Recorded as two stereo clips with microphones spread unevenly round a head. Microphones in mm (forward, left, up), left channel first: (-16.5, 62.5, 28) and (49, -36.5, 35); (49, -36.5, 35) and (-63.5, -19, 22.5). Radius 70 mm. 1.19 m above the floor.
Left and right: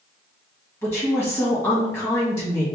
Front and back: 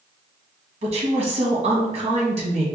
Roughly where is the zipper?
No zipper in this recording.